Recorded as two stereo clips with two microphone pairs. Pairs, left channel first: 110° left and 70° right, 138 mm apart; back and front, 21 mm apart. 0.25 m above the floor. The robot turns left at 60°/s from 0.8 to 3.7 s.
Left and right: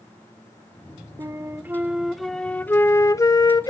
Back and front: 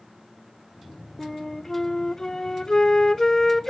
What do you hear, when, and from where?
1.2 s a flute: 95° right, 0.5 m; by 3.7 s 110° left, 0.5 m